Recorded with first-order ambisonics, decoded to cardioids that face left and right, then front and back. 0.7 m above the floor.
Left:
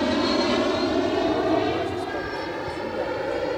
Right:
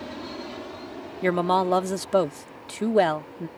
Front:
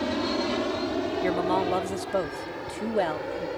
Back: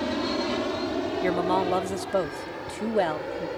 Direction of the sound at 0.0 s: 90° left.